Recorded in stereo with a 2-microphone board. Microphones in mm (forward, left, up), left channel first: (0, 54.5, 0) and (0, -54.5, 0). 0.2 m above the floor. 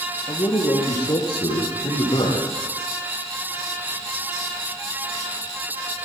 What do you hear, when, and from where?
0.3 s a man speaking: 35° left (ahead or behind), 5.5 m; by 2.5 s 45° left (ahead or behind), 8.5 m